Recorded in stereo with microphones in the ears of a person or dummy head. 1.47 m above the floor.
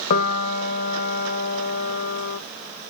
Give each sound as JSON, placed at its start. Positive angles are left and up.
{"t": 0.1, "sound": "a piano", "side_deg": 45, "distance_m": 1.0}